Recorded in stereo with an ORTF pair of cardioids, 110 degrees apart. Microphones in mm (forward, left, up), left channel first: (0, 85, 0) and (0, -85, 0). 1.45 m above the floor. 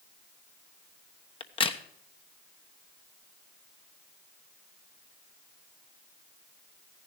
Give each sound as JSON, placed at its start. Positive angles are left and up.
{"t": 1.4, "sound": "a crack", "azimuth_deg": 30, "distance_m": 1.1}